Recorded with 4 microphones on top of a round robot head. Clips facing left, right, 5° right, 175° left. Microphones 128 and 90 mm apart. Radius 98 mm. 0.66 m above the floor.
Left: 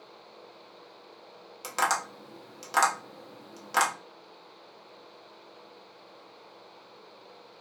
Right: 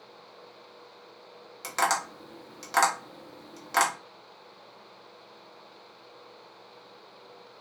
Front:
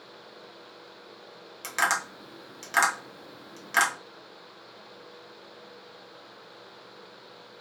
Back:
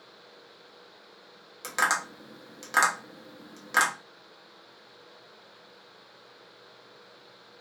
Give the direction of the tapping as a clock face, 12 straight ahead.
7 o'clock.